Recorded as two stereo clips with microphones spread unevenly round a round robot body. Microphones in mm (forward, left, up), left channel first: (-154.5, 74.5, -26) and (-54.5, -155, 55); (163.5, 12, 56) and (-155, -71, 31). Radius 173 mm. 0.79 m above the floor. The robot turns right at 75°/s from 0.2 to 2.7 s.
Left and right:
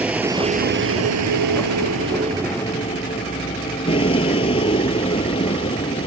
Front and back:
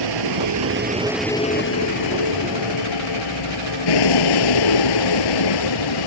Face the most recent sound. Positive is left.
turn(degrees=35)